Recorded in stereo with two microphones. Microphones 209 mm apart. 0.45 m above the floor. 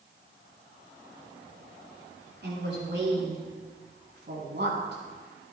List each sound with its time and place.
2.4 s a woman speaking: 55° right (ahead or behind), 5.5 m